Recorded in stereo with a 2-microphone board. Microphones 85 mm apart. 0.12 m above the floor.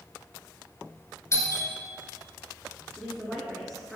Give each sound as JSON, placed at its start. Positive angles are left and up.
{"t": 1.3, "sound": "a doorbell", "side_deg": 35, "distance_m": 1.8}
{"t": 3.0, "sound": "a woman speaking", "side_deg": 5, "distance_m": 1.3}